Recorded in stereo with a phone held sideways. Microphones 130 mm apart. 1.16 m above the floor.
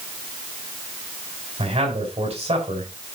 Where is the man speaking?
55° right (ahead or behind), 6.5 m.